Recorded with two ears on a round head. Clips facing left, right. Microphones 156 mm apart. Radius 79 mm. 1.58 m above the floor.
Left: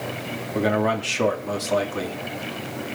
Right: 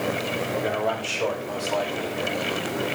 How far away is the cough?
No cough in this recording.